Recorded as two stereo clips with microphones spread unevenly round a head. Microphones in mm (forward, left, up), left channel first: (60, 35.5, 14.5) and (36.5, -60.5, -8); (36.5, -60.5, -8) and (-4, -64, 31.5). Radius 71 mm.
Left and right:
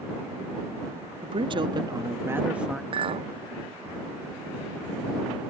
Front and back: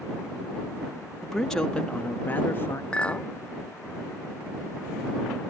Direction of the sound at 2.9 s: 70° right.